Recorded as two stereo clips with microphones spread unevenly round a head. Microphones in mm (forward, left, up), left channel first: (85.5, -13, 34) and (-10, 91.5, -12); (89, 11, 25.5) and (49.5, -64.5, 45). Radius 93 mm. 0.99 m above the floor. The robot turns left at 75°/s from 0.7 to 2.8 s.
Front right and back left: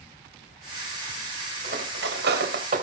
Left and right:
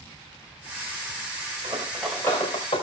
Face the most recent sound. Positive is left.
turn(degrees=100)